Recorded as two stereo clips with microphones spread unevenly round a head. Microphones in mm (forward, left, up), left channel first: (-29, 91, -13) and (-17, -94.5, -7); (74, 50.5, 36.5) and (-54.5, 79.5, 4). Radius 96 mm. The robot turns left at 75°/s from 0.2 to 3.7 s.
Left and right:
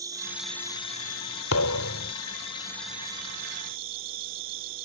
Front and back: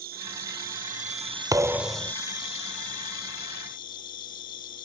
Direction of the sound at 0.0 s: 155° right.